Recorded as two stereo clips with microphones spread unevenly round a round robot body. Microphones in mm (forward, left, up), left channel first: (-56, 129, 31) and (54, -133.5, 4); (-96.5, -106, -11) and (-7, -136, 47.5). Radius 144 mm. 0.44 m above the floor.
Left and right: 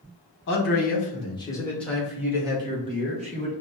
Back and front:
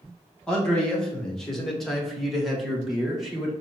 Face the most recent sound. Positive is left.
turn(degrees=-125)